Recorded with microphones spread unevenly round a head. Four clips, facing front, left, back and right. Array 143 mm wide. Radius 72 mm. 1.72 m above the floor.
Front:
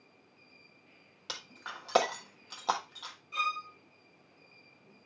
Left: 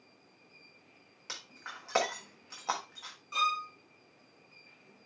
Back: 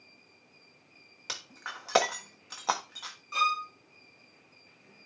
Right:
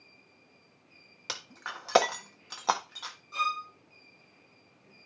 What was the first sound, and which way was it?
Breaking glass, 100° right.